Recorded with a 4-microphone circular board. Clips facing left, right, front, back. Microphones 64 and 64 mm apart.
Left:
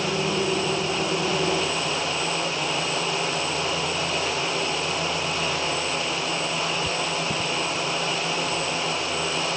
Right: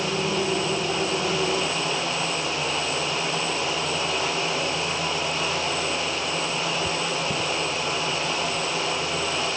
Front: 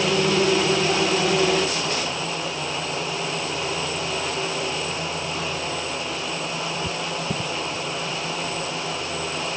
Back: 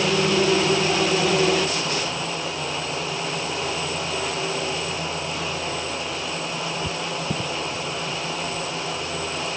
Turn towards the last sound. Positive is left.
No sound to turn to.